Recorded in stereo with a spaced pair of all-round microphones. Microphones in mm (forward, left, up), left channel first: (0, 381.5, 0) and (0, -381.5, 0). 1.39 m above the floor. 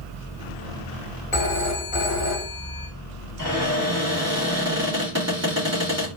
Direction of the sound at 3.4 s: 20° right (ahead or behind).